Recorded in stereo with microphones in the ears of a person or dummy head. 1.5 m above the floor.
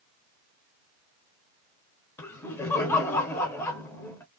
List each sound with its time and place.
2.2 s laughter: 20° left (ahead or behind), 1.0 m